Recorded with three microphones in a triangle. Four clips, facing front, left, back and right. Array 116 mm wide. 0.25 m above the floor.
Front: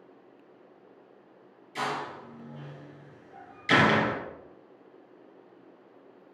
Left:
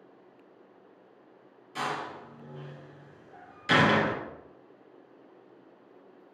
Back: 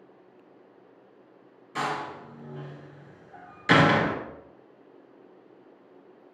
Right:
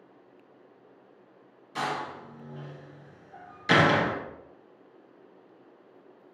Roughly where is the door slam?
Behind.